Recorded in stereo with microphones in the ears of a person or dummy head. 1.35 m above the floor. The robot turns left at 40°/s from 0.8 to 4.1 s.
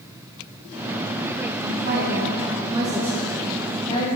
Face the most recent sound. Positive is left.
turn(degrees=145)